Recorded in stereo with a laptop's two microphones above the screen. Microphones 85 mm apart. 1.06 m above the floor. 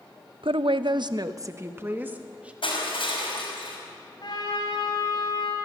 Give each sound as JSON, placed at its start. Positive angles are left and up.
{"t": 0.4, "sound": "a woman speaking", "side_deg": -80, "distance_m": 0.7}
{"t": 2.6, "sound": "crushing", "side_deg": 90, "distance_m": 5.5}
{"t": 4.2, "sound": "a trumpet", "side_deg": 55, "distance_m": 4.5}